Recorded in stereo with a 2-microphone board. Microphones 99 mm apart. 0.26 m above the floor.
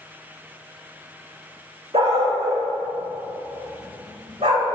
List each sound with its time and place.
1.9 s a dog barking: 85° right, 4.5 m; by 4.8 s 80° right, 6.5 m